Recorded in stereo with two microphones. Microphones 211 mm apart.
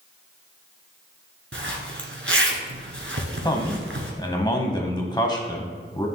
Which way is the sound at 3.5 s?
20° left (ahead or behind).